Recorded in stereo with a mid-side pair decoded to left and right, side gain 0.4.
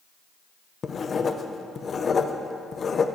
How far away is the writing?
About 0.6 m.